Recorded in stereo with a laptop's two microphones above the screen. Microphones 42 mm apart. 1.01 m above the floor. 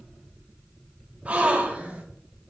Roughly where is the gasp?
Right.